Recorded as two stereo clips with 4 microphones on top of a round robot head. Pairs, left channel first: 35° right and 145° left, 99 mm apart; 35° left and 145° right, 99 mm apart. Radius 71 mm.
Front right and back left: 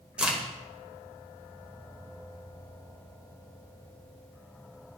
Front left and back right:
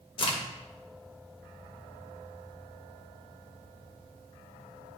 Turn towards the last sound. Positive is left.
turn(degrees=65)